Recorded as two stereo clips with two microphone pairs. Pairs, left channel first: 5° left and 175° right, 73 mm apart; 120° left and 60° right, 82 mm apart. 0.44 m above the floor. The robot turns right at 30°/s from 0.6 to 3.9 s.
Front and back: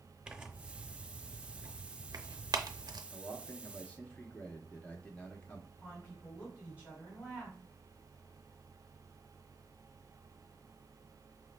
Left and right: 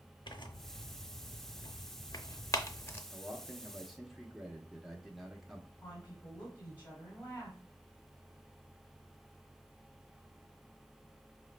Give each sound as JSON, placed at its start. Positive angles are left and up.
{"t": 0.3, "sound": "tearing paper", "azimuth_deg": 110, "distance_m": 0.6}
{"t": 3.1, "sound": "a man speaking", "azimuth_deg": 5, "distance_m": 0.8}
{"t": 5.8, "sound": "a woman speaking", "azimuth_deg": 65, "distance_m": 2.0}